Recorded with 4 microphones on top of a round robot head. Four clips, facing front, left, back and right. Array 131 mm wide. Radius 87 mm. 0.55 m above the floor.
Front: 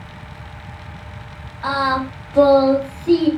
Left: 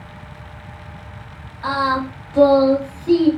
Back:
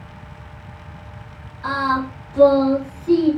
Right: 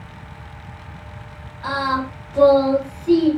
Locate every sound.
1.6 s singing: 20° left, 1.8 m